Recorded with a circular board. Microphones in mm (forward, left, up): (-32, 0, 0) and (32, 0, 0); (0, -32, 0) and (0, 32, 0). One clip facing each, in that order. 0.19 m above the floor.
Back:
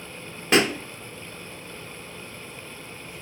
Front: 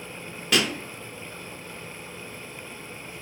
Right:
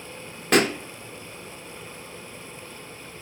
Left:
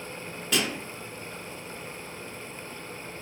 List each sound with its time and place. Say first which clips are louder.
0.5 s a pop: back 4 dB, right 9 dB; 120° right, 0.6 m